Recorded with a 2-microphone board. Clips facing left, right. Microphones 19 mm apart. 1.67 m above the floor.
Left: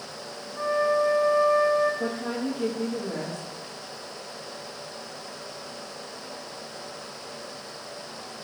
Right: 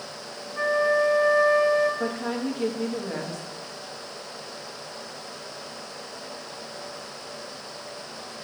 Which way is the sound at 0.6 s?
65° right (ahead or behind).